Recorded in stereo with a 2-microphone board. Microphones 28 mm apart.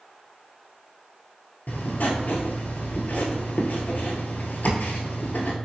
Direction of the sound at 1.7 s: 75° left (ahead or behind).